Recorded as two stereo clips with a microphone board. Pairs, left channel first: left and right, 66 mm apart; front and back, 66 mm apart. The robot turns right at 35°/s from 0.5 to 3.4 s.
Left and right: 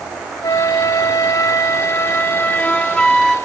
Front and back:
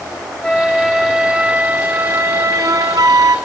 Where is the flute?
75° left, 0.6 m; by 3.4 s 175° left, 0.6 m.